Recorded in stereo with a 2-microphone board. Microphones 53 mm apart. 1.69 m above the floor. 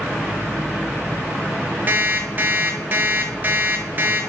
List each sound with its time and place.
1.9 s an alarm clock: 35° right (ahead or behind), 1.5 m